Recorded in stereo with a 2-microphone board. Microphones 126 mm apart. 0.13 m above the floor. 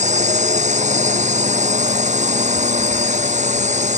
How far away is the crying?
I don't hear crying.